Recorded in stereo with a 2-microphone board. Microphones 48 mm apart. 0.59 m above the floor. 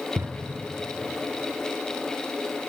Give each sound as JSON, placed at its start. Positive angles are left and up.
{"t": 0.2, "sound": "a drawer", "side_deg": -65, "distance_m": 0.7}